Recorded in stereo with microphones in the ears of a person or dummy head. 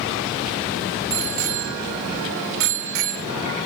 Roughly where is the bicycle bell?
Right.